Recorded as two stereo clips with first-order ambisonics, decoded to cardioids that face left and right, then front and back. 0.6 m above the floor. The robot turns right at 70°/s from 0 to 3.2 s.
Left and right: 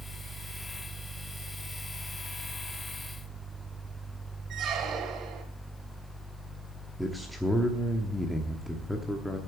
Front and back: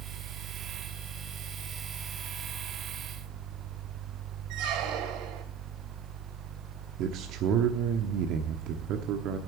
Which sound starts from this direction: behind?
A man speaking, at 7.0 s.